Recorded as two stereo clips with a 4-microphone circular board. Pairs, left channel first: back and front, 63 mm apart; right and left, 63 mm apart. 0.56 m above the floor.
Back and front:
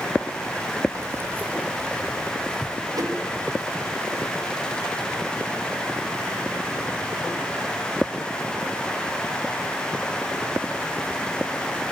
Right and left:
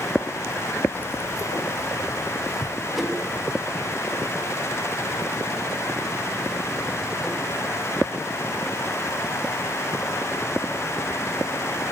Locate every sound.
0.9 s keys jangling: 30° right, 0.9 m; by 3.9 s 105° right, 3.5 m
2.9 s a whoosh: straight ahead, 4 m